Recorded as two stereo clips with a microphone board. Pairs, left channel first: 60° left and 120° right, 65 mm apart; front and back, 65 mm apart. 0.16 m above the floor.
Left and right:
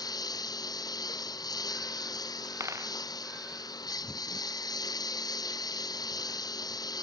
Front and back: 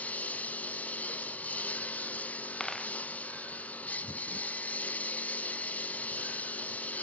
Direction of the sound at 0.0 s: 65° left.